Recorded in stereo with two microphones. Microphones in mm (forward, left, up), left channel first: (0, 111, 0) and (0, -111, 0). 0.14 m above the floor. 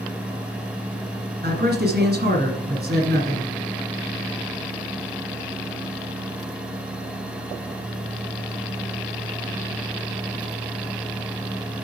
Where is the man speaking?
45° right (ahead or behind), 2.0 m.